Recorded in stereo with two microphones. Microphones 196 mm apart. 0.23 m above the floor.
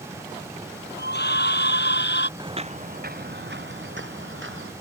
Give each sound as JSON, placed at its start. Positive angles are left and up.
{"t": 1.0, "sound": "a scream", "side_deg": 55}
{"t": 2.4, "sound": "footsteps", "side_deg": -20}